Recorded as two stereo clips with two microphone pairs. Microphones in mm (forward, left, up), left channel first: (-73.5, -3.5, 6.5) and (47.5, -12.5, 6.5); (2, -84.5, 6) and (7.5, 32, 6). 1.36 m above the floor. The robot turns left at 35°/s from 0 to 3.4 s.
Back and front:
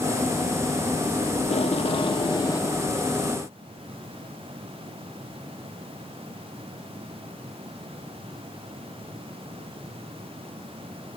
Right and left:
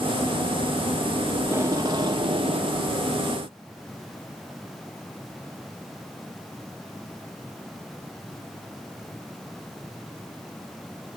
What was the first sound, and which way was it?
Tape being pulled, 160° left.